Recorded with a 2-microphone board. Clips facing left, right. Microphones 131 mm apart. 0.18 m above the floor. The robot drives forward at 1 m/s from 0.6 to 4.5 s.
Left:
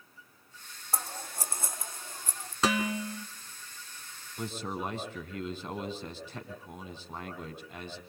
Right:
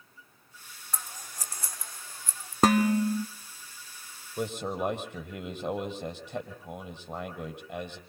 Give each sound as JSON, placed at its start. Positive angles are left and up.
{"t": 0.9, "sound": "scissors", "side_deg": 35, "distance_m": 1.6}
{"t": 2.6, "sound": "dishes clattering", "side_deg": -50, "distance_m": 1.2}
{"t": 4.4, "sound": "a man speaking", "side_deg": -70, "distance_m": 6.0}